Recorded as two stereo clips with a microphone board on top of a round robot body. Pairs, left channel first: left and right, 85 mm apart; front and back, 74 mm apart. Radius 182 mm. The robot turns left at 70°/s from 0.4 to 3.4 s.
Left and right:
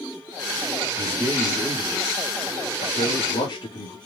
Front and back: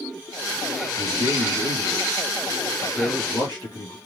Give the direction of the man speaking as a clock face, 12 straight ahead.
4 o'clock.